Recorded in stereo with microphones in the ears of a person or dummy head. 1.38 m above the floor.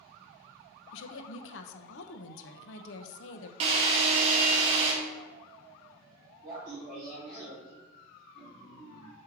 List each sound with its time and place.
0.9 s a woman speaking: 75° left (ahead or behind), 1.0 m
3.6 s a drill: 35° right (ahead or behind), 2 m
6.4 s laughter: 25° right (ahead or behind), 3.5 m